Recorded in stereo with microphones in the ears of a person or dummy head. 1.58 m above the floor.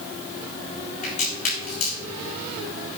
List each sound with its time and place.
1.0 s a crack: 50° left (ahead or behind), 4 m